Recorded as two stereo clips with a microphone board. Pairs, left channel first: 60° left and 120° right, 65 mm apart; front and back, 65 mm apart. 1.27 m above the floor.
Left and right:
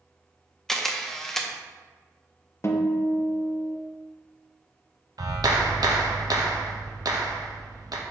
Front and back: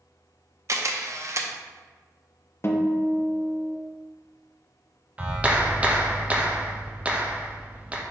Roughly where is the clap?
Right.